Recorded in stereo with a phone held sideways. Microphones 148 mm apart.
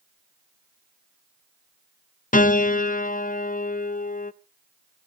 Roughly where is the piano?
Left.